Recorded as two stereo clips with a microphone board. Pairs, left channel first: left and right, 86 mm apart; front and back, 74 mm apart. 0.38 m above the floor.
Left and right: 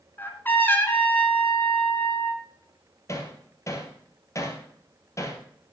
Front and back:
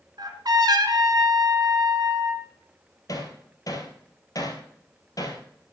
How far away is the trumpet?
About 2 m.